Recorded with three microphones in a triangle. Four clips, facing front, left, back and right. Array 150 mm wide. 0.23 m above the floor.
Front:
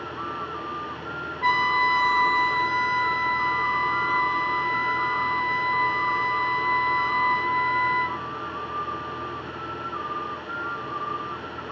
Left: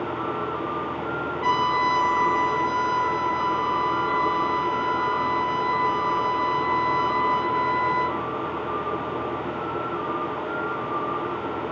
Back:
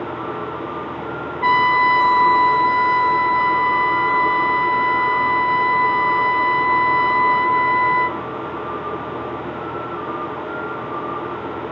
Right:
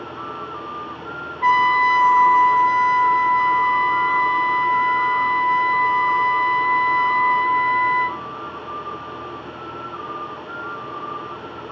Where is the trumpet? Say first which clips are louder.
Right 6 dB, back 7 dB; 155° right, 1.3 m.